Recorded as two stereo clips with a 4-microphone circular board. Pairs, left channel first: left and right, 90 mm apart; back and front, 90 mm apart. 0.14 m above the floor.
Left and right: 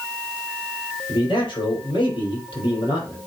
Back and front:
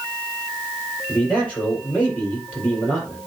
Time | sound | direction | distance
1.1 | a man speaking | 105° left | 4.5 m